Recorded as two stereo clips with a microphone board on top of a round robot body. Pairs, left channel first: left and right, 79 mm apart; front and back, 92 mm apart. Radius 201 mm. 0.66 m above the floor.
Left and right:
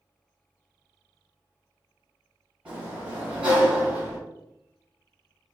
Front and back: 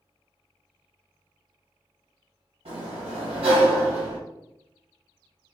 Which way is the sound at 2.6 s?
165° right.